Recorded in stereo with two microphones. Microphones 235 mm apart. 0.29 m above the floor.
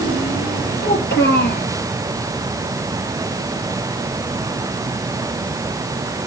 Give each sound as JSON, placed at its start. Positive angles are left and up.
{"t": 0.8, "sound": "a child speaking", "side_deg": 50, "distance_m": 3.5}